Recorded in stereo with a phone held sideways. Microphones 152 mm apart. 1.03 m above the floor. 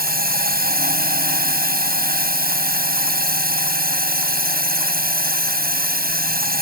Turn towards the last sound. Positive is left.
turn(degrees=-80)